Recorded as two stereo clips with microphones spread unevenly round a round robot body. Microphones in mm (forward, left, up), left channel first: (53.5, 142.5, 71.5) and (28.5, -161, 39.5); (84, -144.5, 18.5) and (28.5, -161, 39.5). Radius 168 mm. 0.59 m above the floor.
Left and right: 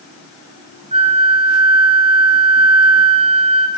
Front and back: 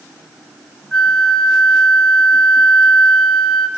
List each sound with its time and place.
0.9 s a flute: 35° right, 1.5 m